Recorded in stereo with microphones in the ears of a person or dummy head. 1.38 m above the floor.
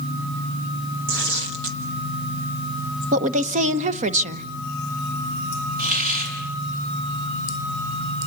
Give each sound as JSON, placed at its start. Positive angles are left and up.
{"t": 1.1, "sound": "tearing paper", "side_deg": -75, "distance_m": 2.5}
{"t": 3.1, "sound": "a woman speaking", "side_deg": -45, "distance_m": 1.2}
{"t": 5.8, "sound": "a hiss", "side_deg": -55, "distance_m": 6.0}